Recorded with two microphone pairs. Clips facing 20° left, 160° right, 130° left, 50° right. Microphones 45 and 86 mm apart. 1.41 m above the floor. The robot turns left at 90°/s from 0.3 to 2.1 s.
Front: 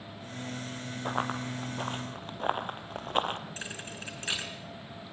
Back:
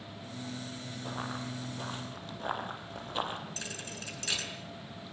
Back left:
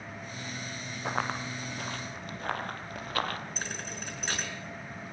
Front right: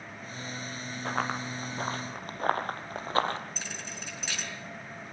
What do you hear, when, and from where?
1.1 s running footsteps: 55° left, 2.5 m; by 3.4 s 5° left, 2.5 m
3.6 s a thud: 90° left, 5.5 m